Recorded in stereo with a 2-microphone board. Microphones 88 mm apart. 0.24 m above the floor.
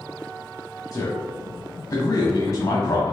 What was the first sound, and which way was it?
A man speaking, 40° left (ahead or behind).